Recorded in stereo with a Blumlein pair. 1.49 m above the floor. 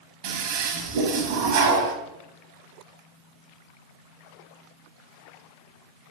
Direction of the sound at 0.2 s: 45° right.